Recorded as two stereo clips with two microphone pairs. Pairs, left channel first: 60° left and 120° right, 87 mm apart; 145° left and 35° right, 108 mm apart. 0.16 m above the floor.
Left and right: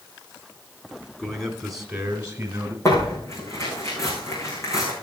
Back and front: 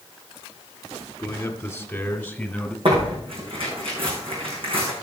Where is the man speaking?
125° left, 1.4 m; by 2.8 s 140° right, 1.5 m.